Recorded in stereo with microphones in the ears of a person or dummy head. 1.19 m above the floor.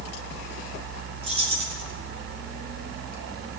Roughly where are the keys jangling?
Right.